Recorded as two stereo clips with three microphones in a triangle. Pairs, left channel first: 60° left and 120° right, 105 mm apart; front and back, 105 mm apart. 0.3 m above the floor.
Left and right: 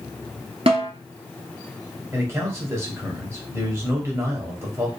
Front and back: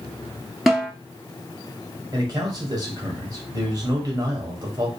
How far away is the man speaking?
About 1.1 m.